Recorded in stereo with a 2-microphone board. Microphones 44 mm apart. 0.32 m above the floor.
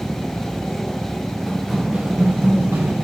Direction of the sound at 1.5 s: 10° left (ahead or behind).